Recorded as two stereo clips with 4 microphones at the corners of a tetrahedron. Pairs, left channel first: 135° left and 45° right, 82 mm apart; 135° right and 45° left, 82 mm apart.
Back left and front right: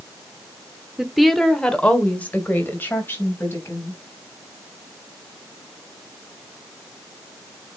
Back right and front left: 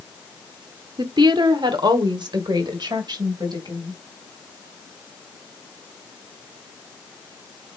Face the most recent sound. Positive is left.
turn(degrees=80)